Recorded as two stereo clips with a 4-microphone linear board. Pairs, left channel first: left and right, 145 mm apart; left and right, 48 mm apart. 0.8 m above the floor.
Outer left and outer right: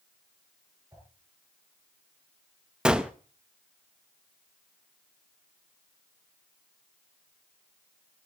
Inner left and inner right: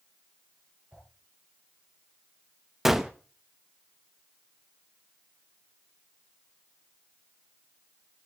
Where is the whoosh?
20° right (ahead or behind), 10 m.